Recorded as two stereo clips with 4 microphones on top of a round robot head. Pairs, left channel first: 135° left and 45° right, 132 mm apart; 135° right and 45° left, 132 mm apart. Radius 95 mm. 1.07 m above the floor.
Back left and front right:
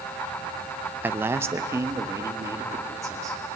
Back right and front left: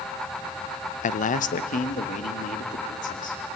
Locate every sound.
1.0 s a man speaking: 120° right, 0.7 m; by 3.4 s 115° right, 3 m